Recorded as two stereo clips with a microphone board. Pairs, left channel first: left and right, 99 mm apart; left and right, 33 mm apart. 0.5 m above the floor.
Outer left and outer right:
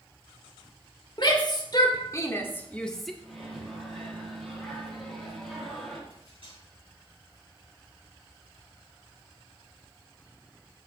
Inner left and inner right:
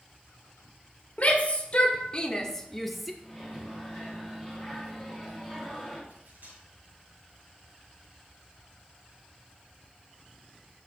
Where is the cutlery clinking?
60° right (ahead or behind), 5.5 m.